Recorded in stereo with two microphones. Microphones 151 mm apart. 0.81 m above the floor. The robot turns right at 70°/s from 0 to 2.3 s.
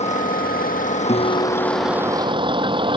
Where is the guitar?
45° left; by 2.4 s 130° left.